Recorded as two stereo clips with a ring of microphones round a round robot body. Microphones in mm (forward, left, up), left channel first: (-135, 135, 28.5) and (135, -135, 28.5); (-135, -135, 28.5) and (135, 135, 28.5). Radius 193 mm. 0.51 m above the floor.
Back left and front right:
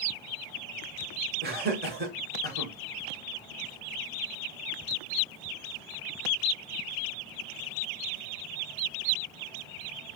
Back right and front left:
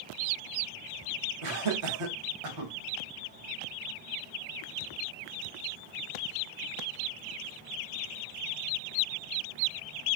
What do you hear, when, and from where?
1.4 s laughter: 20° left, 1.3 m